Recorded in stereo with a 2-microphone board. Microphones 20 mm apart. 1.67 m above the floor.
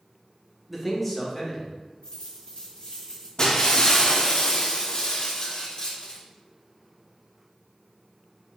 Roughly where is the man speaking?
Centre.